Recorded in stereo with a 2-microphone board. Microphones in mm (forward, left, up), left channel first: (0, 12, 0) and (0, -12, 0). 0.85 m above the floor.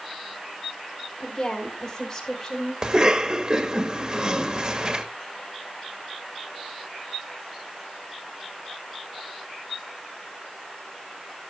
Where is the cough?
35° right (ahead or behind), 1.5 m.